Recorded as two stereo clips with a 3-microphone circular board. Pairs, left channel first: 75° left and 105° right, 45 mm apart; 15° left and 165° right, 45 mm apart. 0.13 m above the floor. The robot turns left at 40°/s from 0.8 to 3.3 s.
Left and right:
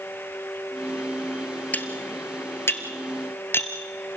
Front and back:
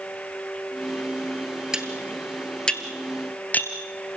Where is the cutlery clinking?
125° left, 1.7 m; by 3.7 s 60° left, 1.7 m.